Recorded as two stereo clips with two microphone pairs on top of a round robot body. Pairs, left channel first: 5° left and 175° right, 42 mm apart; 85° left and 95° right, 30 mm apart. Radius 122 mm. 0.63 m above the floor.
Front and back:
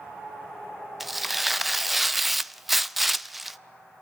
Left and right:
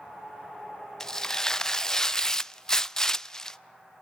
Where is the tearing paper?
105° left, 0.6 m.